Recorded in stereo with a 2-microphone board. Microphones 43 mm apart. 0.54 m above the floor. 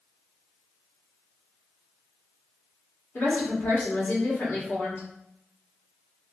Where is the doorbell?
I don't hear a doorbell.